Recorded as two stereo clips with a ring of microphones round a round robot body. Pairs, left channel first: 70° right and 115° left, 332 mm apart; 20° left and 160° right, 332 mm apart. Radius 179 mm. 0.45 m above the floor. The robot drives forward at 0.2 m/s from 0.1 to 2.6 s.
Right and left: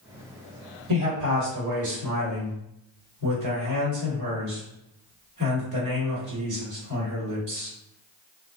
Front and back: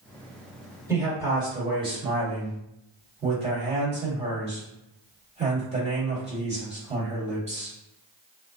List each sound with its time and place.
0.9 s a man speaking: 125° left, 1.6 m; by 7.7 s 135° left, 1.7 m